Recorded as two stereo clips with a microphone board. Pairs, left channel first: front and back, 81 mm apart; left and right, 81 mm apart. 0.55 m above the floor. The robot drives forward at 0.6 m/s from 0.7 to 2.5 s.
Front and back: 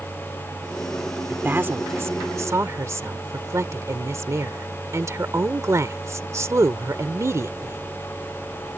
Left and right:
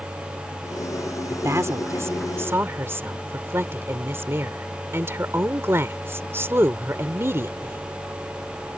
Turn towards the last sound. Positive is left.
turn(degrees=-140)